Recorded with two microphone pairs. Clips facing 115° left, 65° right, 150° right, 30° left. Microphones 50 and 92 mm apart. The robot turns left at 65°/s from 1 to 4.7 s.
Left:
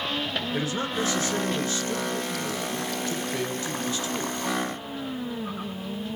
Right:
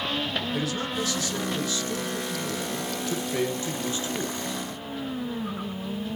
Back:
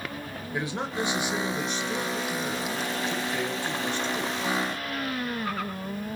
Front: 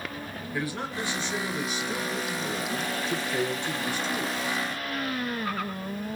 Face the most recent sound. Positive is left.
turn(degrees=-90)